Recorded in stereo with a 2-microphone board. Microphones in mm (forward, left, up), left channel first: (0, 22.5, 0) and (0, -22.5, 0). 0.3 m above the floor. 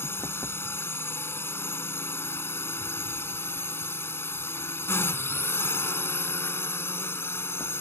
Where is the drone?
60° left (ahead or behind).